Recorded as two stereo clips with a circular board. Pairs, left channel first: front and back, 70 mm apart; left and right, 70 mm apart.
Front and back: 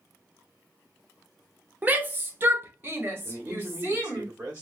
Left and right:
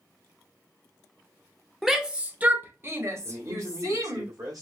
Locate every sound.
1.8 s a shout: 175° right, 0.8 m; by 4.2 s 125° right, 1.9 m
3.2 s a man speaking: 115° right, 1.5 m